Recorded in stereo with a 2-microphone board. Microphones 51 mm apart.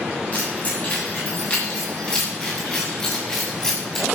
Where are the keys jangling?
35° left (ahead or behind), 7.5 m; by 4.1 s 10° left (ahead or behind), 7 m.